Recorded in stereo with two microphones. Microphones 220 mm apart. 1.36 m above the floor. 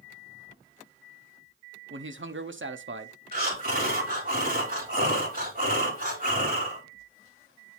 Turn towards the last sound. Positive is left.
turn(degrees=-40)  # may be behind; listen again after turning